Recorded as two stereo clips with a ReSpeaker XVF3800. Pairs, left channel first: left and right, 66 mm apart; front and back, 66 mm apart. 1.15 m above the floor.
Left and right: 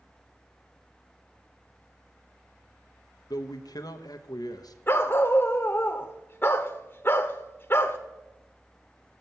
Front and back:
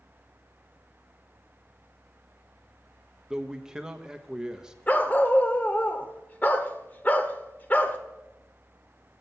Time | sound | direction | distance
3.3 | a man speaking | 100° left | 1.0 m
4.9 | a dog barking | 50° left | 1.0 m